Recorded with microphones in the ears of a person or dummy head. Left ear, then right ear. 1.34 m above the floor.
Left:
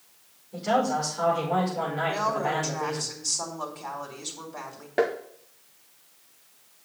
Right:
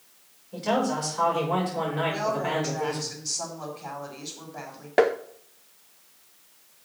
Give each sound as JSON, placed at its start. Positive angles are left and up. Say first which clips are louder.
{"t": 0.5, "sound": "a man speaking", "louder": "left 1 dB", "side_deg": -30, "distance_m": 5.5}
{"t": 2.0, "sound": "a woman speaking", "louder": "left 2 dB", "side_deg": 80, "distance_m": 3.0}
{"t": 5.0, "sound": "tapping", "louder": "right 4 dB", "side_deg": -30, "distance_m": 0.5}